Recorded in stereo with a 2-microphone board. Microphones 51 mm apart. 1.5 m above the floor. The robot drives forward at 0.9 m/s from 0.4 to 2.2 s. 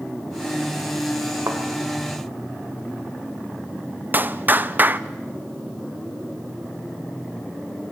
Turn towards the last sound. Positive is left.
turn(degrees=-35)  # may be behind; listen again after turning